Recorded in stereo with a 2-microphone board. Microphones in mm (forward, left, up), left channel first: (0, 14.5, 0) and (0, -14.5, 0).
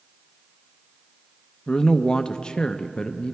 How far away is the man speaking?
About 0.6 m.